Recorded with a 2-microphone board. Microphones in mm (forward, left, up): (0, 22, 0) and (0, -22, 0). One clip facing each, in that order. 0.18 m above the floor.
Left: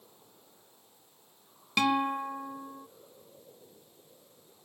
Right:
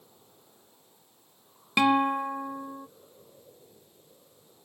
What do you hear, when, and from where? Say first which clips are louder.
1.8 s a guitar: right 4 dB; 15° right (ahead or behind)